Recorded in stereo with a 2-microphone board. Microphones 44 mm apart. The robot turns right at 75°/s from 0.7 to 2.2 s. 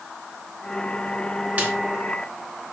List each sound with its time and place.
1.6 s a snare drum: 35° right (ahead or behind), 2 m; by 1.7 s 40° right (ahead or behind), 2 m